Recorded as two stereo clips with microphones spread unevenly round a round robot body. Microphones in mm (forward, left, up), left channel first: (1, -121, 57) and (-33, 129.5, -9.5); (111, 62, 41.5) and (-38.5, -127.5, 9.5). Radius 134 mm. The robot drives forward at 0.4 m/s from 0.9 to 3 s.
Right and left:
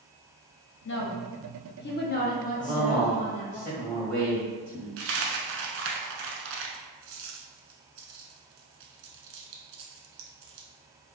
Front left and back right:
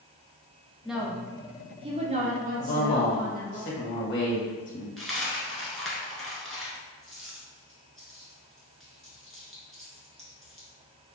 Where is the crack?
I don't hear a crack.